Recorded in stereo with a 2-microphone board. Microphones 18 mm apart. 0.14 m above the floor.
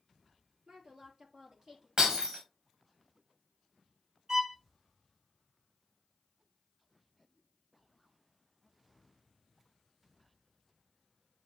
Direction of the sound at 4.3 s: 40° right (ahead or behind).